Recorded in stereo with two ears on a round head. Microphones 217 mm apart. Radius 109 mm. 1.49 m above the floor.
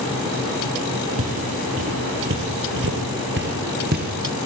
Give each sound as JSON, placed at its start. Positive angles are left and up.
{"t": 1.2, "sound": "footsteps", "side_deg": -60, "distance_m": 3.5}